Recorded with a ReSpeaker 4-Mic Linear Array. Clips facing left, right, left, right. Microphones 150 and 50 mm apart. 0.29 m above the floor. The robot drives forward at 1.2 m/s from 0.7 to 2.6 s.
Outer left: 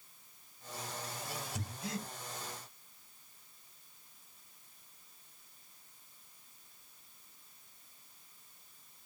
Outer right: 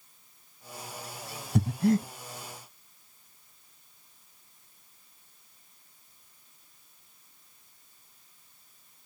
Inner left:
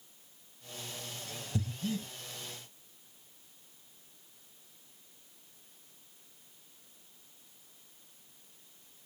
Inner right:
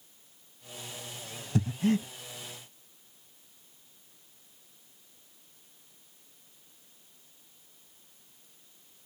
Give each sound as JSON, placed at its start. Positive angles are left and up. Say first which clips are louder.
{"t": 1.6, "sound": "breathing", "louder": "outer right 22 dB, inner right 9 dB", "side_deg": -60, "distance_m": 0.5}